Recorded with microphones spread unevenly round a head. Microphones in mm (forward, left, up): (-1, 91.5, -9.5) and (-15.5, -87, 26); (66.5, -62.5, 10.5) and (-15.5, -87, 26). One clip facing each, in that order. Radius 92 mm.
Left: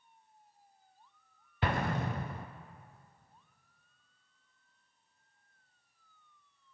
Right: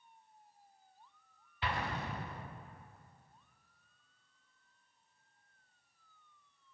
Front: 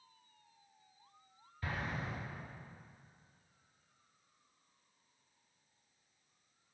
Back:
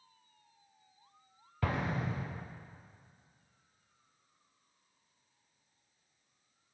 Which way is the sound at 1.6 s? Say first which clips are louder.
Left 6 dB, back 6 dB; 135° left.